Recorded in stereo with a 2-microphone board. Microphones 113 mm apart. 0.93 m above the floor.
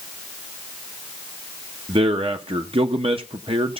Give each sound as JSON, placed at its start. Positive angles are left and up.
{"t": 1.9, "sound": "a man speaking", "side_deg": -55, "distance_m": 0.8}